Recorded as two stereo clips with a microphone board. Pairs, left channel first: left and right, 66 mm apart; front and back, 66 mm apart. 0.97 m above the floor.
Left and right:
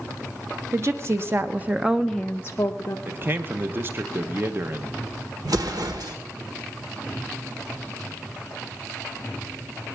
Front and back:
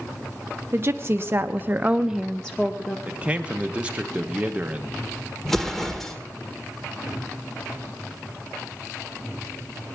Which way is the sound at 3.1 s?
120° right.